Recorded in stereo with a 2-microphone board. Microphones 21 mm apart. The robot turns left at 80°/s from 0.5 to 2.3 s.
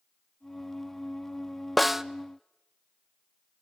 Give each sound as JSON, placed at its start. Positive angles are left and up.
{"t": 1.8, "sound": "a snare drum", "side_deg": -10, "distance_m": 0.5}